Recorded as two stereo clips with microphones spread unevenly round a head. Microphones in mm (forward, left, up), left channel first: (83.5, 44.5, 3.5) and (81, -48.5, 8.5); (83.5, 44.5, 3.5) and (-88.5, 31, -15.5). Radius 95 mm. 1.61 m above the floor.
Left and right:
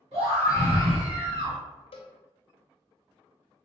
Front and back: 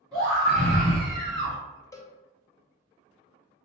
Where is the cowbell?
75° left, 0.6 m.